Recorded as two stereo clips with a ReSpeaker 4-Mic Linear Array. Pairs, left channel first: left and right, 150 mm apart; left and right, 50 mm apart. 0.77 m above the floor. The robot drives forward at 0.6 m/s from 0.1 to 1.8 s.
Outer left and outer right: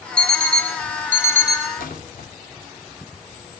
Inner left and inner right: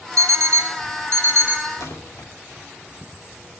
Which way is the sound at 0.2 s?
80° right.